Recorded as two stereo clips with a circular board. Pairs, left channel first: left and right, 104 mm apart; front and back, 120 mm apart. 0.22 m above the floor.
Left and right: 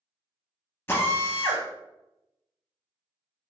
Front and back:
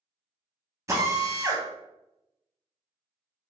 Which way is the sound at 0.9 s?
140° left.